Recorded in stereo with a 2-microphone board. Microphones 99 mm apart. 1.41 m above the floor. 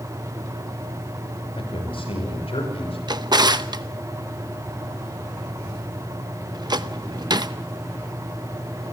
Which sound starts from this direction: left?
A man speaking, at 1.6 s.